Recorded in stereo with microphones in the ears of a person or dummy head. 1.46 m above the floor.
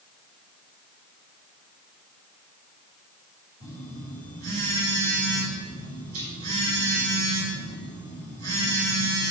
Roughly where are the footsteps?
I don't hear footsteps.